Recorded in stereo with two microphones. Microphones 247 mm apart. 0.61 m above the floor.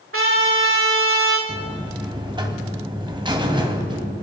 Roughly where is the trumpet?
Right.